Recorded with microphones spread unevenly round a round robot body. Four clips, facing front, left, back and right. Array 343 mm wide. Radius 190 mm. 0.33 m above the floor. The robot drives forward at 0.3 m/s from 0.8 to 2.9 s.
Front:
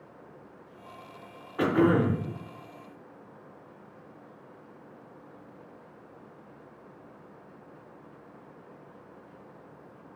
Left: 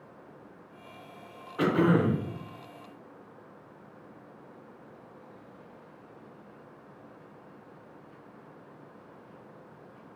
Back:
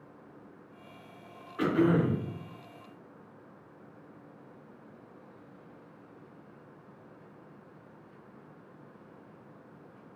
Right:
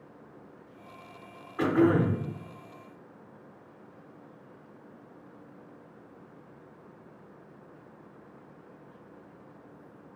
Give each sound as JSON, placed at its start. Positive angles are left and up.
{"t": 1.6, "sound": "throat clearing", "azimuth_deg": 20, "distance_m": 0.9}